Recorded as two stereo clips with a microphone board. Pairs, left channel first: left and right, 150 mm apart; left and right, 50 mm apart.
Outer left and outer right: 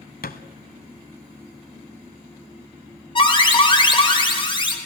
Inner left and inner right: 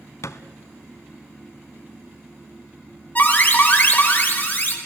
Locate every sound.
0.2 s a thud: 80° left, 0.9 m
3.1 s an alarm: 35° left (ahead or behind), 2.5 m